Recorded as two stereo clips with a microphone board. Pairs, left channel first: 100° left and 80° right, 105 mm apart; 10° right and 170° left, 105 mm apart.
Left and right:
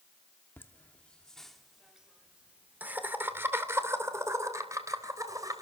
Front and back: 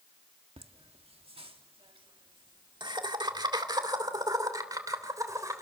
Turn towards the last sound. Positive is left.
turn(degrees=-135)